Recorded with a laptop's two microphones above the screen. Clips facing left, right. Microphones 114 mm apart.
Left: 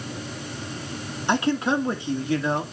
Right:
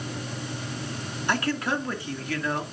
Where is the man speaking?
20° left (ahead or behind), 2 m.